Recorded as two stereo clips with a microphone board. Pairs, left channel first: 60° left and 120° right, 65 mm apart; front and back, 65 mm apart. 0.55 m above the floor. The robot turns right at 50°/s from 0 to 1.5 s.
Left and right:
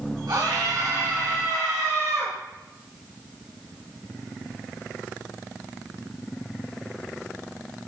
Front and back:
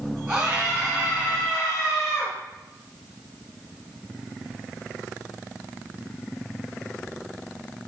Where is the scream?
105° right, 4 m; by 2.3 s 45° right, 4 m.